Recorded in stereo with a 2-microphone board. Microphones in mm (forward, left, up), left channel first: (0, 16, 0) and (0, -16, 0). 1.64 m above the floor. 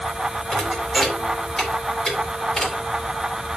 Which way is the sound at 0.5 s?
20° left (ahead or behind).